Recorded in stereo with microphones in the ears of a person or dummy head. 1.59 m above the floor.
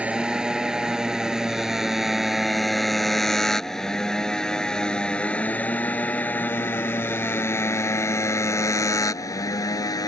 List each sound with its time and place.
0.0 s a motorcycle: 5° right (ahead or behind); by 10.1 s 20° left (ahead or behind)